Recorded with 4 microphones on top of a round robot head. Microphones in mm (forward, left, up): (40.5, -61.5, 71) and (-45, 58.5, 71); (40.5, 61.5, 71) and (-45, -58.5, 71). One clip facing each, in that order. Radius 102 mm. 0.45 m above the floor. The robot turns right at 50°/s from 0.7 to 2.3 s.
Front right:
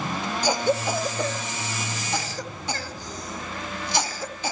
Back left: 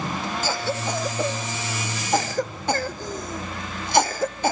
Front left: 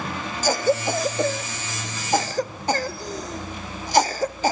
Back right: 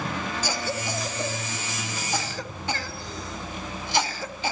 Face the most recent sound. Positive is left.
turn(degrees=95)